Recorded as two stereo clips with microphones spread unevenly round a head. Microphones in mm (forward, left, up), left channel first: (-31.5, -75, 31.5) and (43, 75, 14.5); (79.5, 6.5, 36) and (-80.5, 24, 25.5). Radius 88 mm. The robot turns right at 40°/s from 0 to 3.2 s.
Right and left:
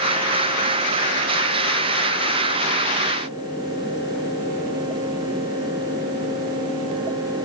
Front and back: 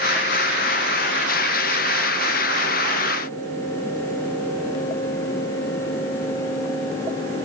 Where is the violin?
I don't hear a violin.